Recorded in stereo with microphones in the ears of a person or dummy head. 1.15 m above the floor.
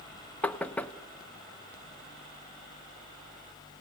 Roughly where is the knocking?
Centre.